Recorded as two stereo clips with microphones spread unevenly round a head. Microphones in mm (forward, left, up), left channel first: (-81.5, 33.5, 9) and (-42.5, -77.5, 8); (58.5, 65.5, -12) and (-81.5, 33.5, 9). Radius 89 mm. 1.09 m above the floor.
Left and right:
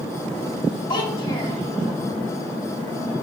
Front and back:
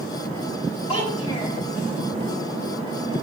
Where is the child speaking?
60° left, 3.5 m.